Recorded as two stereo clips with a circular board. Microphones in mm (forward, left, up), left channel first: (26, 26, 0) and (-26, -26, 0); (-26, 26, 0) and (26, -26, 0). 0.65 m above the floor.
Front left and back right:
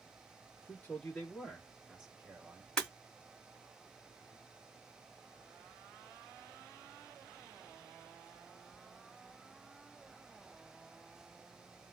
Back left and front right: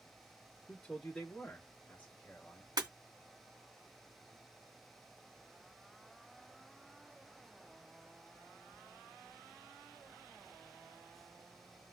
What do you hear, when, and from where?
0.7 s a man speaking: 60° left, 1.2 m; by 2.7 s 170° right, 1.4 m
2.8 s breaking glass: 35° right, 1.9 m